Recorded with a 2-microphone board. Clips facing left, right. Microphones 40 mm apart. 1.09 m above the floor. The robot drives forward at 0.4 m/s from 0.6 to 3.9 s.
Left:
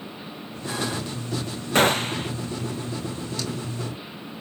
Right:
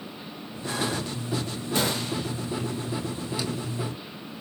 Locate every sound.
1.8 s a gunshot: 50° left (ahead or behind), 0.6 m; by 2.3 s 40° left (ahead or behind), 0.7 m